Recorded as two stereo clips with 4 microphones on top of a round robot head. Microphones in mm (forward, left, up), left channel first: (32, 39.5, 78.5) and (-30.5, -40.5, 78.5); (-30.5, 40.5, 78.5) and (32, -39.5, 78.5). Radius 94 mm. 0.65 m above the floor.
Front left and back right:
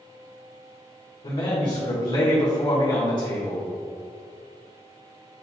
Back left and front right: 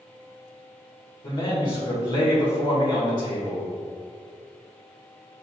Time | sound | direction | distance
1.2 | a man speaking | 90° left | 1.6 m